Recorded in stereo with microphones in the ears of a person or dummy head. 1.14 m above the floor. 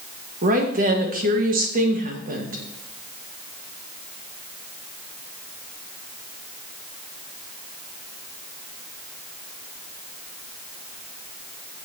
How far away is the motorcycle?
No motorcycle in this recording.